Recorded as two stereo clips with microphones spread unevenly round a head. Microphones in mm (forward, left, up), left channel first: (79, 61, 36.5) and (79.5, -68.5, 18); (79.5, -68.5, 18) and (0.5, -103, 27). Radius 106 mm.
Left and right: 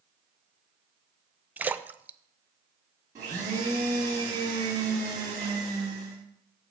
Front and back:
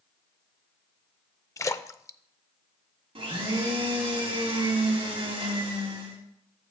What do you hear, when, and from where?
1.6 s a splash: 20° right, 0.5 m
3.1 s a blender: 160° right, 2.5 m